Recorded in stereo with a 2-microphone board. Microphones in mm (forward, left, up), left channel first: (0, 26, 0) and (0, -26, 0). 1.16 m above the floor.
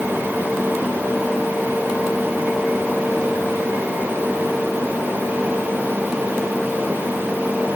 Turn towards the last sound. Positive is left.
No sound to turn to.